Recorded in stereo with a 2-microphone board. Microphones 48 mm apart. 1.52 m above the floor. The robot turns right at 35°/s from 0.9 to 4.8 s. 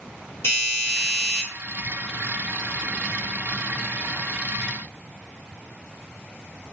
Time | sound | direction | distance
0.4 | a doorbell | 65° left (ahead or behind) | 1.4 m